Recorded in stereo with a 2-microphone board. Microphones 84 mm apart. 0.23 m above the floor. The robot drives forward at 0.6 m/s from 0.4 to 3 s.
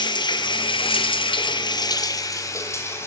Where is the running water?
65° left (ahead or behind), 0.8 m; by 3.1 s 30° left (ahead or behind), 1.4 m.